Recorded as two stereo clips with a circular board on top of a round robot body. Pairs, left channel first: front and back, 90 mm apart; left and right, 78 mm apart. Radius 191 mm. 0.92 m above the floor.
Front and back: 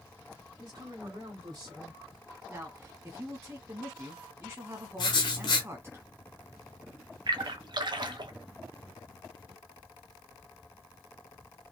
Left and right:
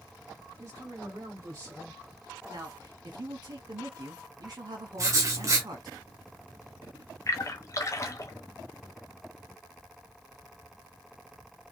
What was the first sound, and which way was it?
A woman speaking, 135° right.